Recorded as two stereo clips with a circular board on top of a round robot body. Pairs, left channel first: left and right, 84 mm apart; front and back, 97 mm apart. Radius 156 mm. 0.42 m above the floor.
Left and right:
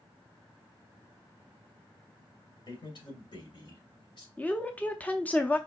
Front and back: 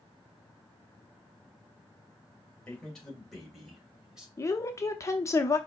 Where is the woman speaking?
30° left, 0.9 m.